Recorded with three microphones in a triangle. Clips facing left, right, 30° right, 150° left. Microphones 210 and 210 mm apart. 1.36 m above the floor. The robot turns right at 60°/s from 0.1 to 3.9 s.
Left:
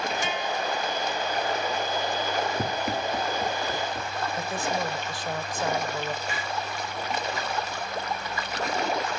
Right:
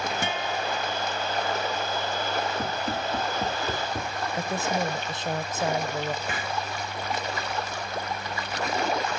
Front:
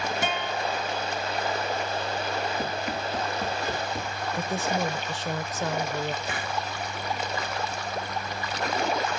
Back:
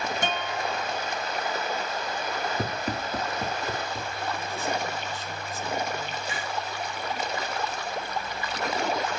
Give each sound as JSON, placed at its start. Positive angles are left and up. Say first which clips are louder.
{"t": 0.2, "sound": "a guitar", "louder": "even, front 1 dB", "azimuth_deg": -115, "distance_m": 1.6}
{"t": 2.6, "sound": "running footsteps", "louder": "left 1 dB, even", "azimuth_deg": 125, "distance_m": 1.5}
{"t": 4.3, "sound": "a woman speaking", "louder": "right 3 dB, front 5 dB", "azimuth_deg": -20, "distance_m": 0.9}
{"t": 6.2, "sound": "a hiss", "louder": "right 1 dB, front 1 dB", "azimuth_deg": -55, "distance_m": 1.4}